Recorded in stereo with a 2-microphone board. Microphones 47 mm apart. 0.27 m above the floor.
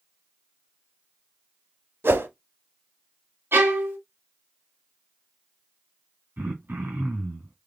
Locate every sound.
2.0 s a whoosh: 60° right (ahead or behind), 0.6 m
3.5 s a violin: 55° right (ahead or behind), 1.7 m
6.4 s throat clearing: 50° right (ahead or behind), 2.5 m